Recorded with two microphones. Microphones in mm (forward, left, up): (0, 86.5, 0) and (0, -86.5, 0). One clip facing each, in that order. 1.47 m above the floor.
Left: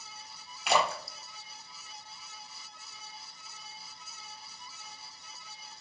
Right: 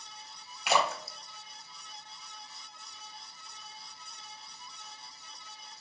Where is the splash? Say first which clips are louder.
Left 1 dB; centre (ahead or behind), 0.9 m.